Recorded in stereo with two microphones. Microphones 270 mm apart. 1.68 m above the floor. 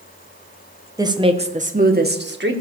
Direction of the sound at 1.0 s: 15° right (ahead or behind).